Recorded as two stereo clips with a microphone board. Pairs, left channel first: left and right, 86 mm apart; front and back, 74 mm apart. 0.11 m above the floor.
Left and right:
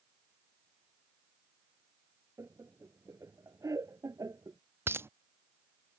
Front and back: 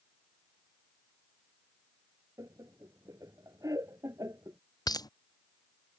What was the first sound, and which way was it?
Laughter, 145° right.